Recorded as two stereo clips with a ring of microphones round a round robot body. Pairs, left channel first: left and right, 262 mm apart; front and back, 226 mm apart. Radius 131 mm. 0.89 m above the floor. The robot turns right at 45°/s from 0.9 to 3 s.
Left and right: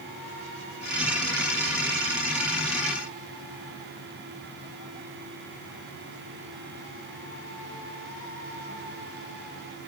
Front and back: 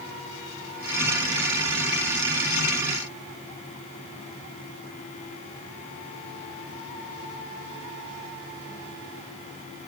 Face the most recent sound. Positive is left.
No sound to turn to.